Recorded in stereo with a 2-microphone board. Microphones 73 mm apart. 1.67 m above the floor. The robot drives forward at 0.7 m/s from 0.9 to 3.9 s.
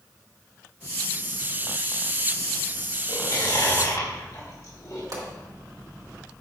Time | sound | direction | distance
3.1 | chewing | 60° left (ahead or behind) | 2.5 m
5.1 | a pop | 65° right (ahead or behind) | 2.5 m